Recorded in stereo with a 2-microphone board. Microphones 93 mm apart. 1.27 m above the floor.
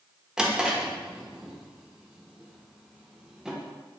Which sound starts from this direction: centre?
A drawer, at 0.4 s.